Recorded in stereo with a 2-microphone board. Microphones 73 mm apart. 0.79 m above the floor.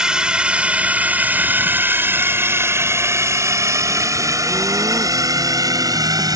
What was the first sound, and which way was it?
A drone, 10° right (ahead or behind).